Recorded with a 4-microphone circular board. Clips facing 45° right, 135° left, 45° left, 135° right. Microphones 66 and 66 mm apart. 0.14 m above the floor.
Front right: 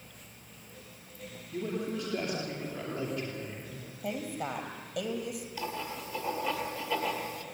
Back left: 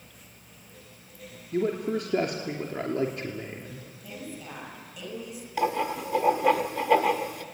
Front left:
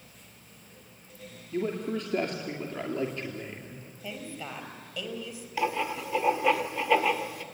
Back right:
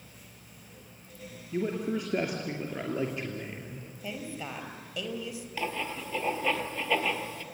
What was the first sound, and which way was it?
A man speaking, 145° left.